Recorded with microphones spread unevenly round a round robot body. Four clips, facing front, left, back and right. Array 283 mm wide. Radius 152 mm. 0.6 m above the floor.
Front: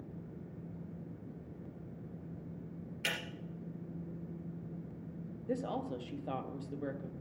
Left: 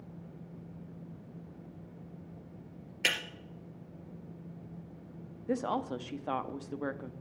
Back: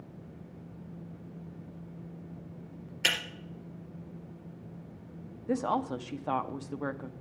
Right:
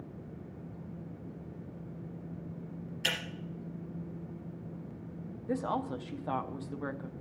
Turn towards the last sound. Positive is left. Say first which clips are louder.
# left 1 dB, back 7 dB
turn(degrees=165)